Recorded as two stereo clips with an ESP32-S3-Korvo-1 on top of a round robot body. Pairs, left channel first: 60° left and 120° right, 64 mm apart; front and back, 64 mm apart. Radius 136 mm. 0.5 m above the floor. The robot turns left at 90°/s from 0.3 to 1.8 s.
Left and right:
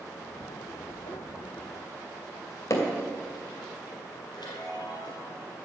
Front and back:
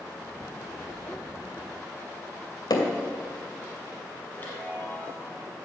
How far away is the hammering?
About 2.5 m.